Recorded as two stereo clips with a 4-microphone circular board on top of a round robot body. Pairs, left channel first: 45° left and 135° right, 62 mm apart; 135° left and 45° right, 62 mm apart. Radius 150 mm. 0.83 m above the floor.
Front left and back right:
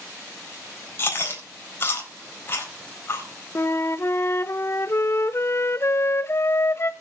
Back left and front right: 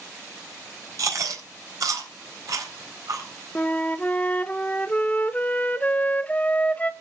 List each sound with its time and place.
1.0 s chewing: 10° right, 3.5 m
3.5 s a flute: 75° left, 1.0 m